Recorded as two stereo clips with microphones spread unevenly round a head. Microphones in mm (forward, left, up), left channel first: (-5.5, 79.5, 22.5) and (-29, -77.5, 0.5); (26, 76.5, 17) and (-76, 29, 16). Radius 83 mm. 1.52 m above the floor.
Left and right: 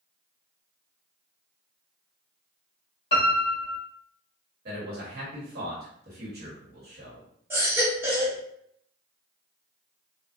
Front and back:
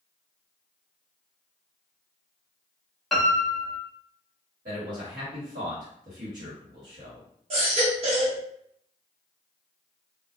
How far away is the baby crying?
About 0.9 m.